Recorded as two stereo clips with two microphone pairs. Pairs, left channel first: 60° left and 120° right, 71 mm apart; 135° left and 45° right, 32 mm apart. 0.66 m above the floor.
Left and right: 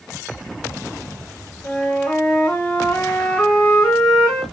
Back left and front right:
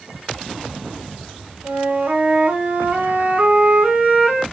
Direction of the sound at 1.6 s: 10° right.